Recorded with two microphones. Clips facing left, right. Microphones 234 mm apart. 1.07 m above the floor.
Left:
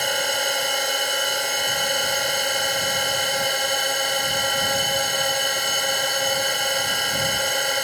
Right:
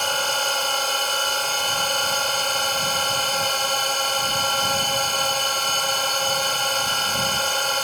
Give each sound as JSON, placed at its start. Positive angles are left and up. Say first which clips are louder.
{"t": 0.0, "sound": "a drone", "louder": "left 2 dB", "side_deg": 15}